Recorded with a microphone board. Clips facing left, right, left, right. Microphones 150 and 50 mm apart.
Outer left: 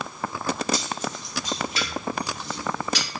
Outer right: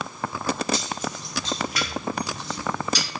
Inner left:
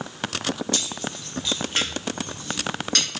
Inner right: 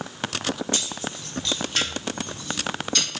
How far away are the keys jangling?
About 0.9 m.